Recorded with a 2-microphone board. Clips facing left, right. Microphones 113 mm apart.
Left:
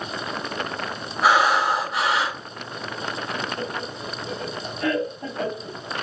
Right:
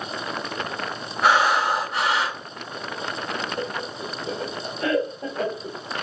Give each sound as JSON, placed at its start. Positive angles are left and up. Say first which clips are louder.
{"t": 1.2, "sound": "breathing", "louder": "left 1 dB", "side_deg": 5, "distance_m": 1.3}
{"t": 3.6, "sound": "laughter", "louder": "right 1 dB", "side_deg": -20, "distance_m": 1.6}